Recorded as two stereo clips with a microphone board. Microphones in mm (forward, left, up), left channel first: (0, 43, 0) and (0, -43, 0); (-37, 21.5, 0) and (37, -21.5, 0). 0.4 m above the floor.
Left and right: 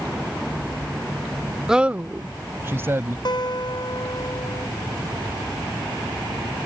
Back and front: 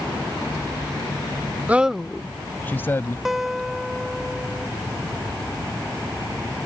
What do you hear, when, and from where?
1.7 s a man speaking: 20° right; by 3.1 s 150° right
3.2 s a guitar: 55° left